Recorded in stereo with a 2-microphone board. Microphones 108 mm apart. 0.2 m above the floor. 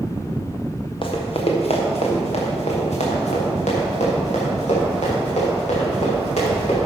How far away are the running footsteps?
About 3 m.